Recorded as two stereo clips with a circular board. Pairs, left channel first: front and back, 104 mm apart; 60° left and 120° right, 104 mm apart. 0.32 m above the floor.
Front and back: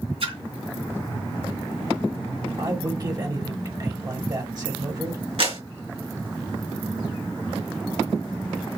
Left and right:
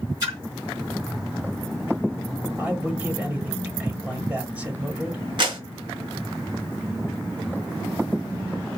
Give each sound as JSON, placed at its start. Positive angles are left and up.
{"t": 0.2, "sound": "a splash", "azimuth_deg": -170, "distance_m": 3.5}
{"t": 2.6, "sound": "a man speaking", "azimuth_deg": 175, "distance_m": 1.2}
{"t": 5.4, "sound": "a clap", "azimuth_deg": -160, "distance_m": 3.0}